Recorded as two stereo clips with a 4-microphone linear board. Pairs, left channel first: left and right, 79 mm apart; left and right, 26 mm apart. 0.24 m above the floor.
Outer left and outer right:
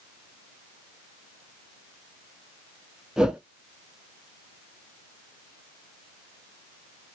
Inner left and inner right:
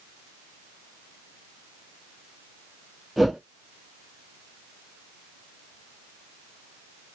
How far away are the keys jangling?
I don't hear keys jangling.